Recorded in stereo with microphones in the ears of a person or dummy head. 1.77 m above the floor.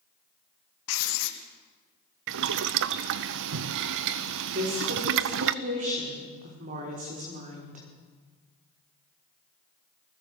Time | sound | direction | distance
0.9 | writing | 80° left | 1.6 m
2.3 | boiling | 65° right (ahead or behind) | 0.6 m
4.5 | a woman speaking | 45° right (ahead or behind) | 5 m